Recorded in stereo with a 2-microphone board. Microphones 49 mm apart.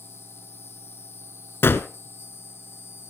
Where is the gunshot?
55° left (ahead or behind), 1.1 m.